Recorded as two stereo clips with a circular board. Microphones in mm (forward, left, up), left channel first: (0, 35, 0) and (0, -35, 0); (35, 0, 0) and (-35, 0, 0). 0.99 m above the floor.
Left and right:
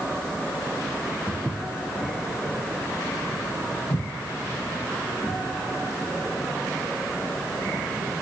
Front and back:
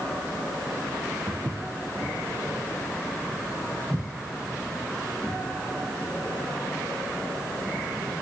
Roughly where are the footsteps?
Behind.